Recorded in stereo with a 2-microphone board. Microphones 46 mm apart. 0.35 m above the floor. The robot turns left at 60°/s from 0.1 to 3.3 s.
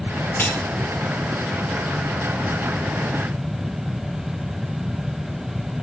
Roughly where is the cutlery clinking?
Left.